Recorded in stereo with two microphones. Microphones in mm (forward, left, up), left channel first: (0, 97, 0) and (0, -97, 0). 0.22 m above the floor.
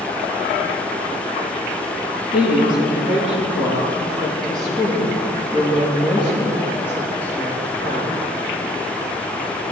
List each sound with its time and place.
2.3 s a woman speaking: 5° right (ahead or behind), 7 m; by 8.2 s 10° left (ahead or behind), 9 m